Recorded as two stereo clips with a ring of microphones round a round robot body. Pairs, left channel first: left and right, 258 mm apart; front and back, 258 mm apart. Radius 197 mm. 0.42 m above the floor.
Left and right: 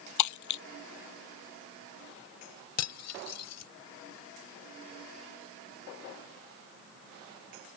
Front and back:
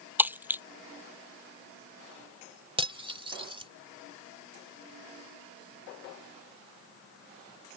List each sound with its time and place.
0.2 s breaking glass: 95° left
2.8 s cutlery clinking: 110° left